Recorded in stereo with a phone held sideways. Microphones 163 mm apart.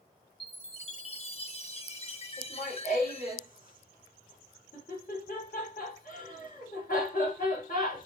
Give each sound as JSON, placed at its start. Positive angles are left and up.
{"t": 0.4, "sound": "a chime", "side_deg": 40, "distance_m": 1.2}
{"t": 2.4, "sound": "laughter", "side_deg": 60, "distance_m": 3.5}